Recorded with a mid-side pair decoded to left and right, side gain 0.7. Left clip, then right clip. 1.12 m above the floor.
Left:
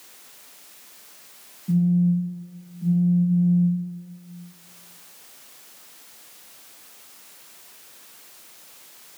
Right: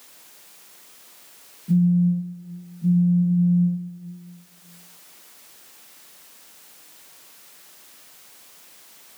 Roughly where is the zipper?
No zipper in this recording.